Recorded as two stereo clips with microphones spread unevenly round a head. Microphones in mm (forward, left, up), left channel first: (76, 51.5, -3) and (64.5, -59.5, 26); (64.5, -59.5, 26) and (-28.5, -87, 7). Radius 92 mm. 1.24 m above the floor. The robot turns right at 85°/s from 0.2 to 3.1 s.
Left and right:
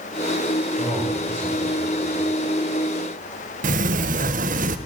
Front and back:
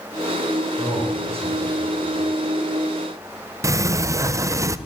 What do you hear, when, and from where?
0.8 s a man speaking: 155° left, 7.5 m; by 2.3 s 70° right, 7.5 m
3.6 s a sliding door: 105° right, 0.7 m